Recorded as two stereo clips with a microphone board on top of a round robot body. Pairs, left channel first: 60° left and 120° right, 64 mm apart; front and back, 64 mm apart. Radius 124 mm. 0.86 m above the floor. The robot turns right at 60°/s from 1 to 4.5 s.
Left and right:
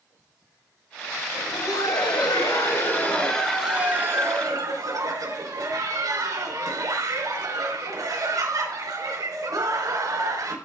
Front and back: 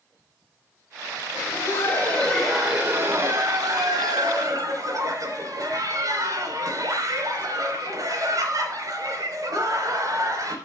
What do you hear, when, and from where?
1.3 s laughter: 20° left, 4.5 m; by 10.6 s 150° right, 4.5 m